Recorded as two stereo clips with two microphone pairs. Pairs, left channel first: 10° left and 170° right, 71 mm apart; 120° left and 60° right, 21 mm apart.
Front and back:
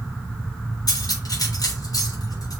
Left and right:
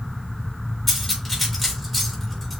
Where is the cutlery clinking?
40° left, 4 m.